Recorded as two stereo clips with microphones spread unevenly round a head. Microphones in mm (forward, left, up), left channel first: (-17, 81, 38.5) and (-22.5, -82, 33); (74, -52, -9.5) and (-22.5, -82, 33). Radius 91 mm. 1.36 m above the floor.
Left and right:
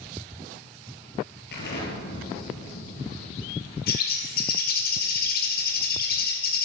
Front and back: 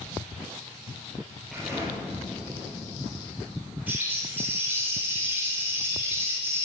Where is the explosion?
110° left, 7.5 m.